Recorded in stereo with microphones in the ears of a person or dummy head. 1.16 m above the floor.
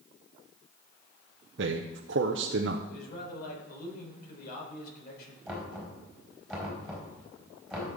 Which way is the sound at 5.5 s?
Centre (ahead or behind).